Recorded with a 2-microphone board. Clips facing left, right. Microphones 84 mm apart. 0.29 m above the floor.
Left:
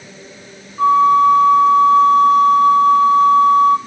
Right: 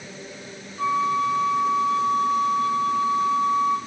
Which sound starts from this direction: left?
A flute, at 0.8 s.